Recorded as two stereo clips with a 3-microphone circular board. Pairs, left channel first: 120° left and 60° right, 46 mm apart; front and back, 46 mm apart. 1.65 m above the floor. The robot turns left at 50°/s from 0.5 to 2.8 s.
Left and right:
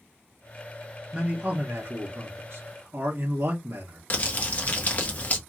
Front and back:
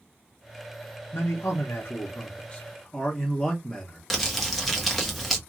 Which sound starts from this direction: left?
Crumpling, at 4.1 s.